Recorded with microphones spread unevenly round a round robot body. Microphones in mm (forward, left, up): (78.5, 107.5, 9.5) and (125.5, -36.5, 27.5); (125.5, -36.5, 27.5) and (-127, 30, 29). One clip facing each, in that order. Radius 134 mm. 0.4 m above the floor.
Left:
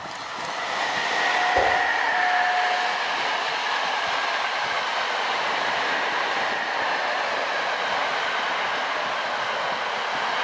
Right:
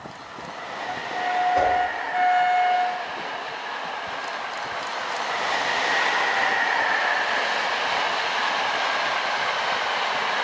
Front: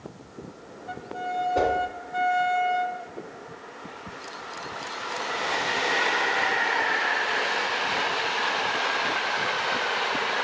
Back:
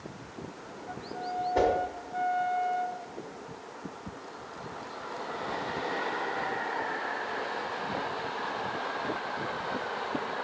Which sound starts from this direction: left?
A whoosh, at 1.6 s.